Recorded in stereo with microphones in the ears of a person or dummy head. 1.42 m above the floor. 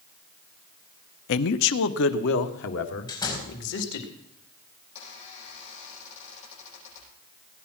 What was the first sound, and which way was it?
A man speaking, 70° left (ahead or behind).